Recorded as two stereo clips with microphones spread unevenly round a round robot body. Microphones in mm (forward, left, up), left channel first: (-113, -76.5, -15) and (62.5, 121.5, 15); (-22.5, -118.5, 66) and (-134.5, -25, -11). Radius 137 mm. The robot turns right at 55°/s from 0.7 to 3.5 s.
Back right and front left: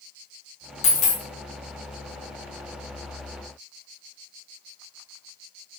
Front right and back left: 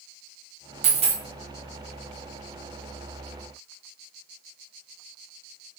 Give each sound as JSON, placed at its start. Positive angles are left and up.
{"t": 0.8, "sound": "a dropped coin", "azimuth_deg": -170, "distance_m": 0.6}